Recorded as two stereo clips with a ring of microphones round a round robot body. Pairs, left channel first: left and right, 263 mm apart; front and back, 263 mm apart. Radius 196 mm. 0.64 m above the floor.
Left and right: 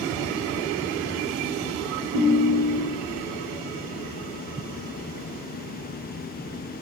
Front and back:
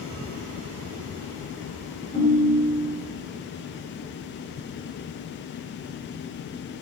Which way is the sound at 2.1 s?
50° right.